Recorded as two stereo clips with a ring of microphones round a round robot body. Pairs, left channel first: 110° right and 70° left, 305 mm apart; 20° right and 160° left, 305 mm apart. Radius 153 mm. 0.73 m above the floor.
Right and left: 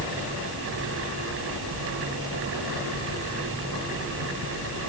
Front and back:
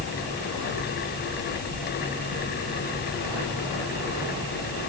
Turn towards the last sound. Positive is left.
No sound to turn to.